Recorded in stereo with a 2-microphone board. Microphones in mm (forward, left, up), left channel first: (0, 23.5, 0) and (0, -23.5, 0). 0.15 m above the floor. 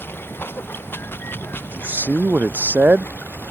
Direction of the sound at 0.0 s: 50° left (ahead or behind).